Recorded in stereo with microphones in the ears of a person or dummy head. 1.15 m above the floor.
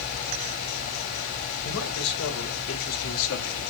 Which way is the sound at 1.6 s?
80° left.